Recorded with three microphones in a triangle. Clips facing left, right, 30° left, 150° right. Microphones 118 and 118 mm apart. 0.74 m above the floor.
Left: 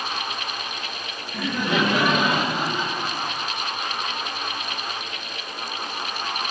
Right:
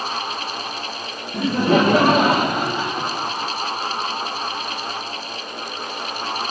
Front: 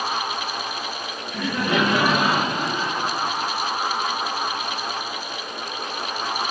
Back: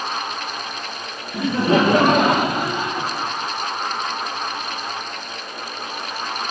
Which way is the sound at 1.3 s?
95° right.